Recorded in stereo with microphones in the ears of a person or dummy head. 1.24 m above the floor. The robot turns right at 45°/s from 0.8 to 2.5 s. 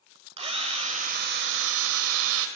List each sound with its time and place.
0.4 s a drill: 150° right, 2.5 m; by 2.5 s 75° right, 2.5 m